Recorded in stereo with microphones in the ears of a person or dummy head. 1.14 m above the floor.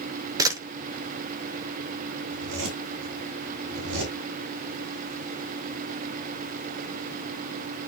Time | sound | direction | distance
0.4 | a camera shutter | 25° right (ahead or behind) | 1.1 m
2.3 | a zipper | 80° right | 5.5 m